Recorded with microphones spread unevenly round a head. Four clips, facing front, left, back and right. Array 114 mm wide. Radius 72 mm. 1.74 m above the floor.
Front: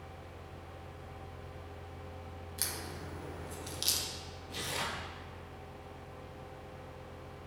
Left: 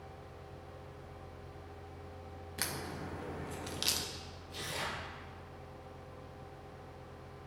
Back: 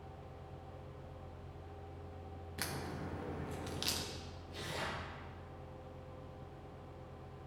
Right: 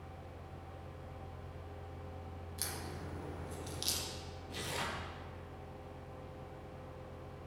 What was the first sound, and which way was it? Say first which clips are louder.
A crack: left 5 dB, back 2 dB; 105° left.